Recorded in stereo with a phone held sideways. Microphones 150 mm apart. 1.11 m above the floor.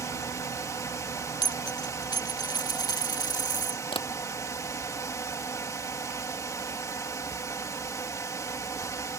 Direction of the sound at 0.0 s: 20° left (ahead or behind).